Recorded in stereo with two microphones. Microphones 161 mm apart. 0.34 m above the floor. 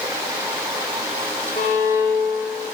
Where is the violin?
45° left (ahead or behind), 5 m.